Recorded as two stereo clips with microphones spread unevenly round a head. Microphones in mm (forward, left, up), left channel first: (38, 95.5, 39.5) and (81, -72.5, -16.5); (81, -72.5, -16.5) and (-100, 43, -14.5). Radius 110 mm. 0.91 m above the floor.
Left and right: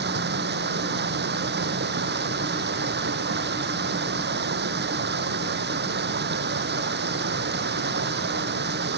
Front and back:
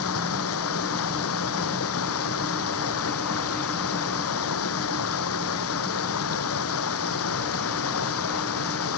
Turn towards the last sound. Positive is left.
turn(degrees=-50)